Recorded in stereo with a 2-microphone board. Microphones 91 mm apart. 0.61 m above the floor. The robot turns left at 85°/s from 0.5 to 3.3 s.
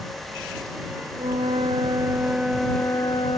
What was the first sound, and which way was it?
A flute, 65° right.